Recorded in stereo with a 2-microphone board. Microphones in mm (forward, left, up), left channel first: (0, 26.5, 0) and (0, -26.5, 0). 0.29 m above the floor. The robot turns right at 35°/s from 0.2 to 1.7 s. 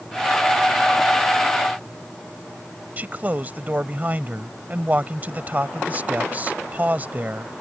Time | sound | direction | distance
3.0 | a man speaking | 30° right (ahead or behind) | ?